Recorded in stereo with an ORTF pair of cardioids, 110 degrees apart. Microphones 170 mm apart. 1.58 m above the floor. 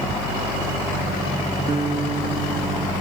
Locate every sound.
1.7 s a guitar: 35° right